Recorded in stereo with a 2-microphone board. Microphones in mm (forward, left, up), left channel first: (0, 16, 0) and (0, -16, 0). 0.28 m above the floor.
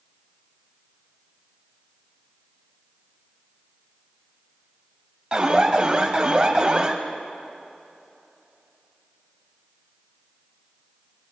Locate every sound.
5.3 s an alarm: 30° right (ahead or behind), 1.1 m